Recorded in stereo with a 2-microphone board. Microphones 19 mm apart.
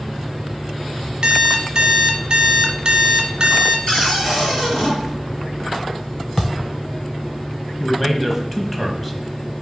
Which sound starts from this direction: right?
An alarm clock, at 1.2 s.